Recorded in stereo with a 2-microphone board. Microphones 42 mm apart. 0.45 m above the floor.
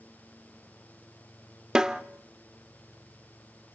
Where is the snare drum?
15° right (ahead or behind), 0.9 m.